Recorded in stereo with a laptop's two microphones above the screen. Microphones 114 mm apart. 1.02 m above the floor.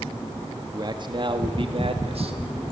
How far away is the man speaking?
About 1.7 m.